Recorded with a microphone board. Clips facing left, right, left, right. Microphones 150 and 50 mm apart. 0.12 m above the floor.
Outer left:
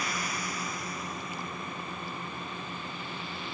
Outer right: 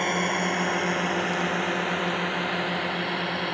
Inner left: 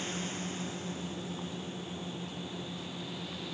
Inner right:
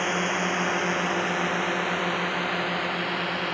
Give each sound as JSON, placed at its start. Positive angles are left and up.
{"t": 0.0, "sound": "a drone", "side_deg": -55}